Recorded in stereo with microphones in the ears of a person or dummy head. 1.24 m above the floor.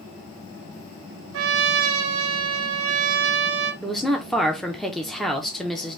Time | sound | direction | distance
1.3 | a trumpet | 70° right (ahead or behind) | 0.8 m
3.8 | a woman speaking | 5° right (ahead or behind) | 0.7 m